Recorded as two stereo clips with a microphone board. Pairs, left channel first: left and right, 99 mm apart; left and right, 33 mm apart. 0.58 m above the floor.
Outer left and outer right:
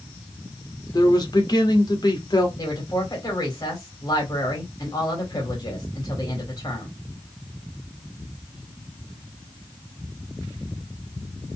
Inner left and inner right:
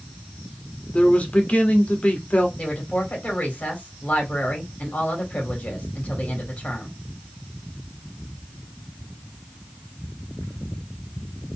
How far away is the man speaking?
About 1.7 m.